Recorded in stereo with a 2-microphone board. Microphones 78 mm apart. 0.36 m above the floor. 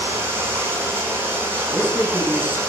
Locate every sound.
0.0 s running water: 30° right (ahead or behind), 4.5 m
1.7 s a man speaking: 20° right (ahead or behind), 3 m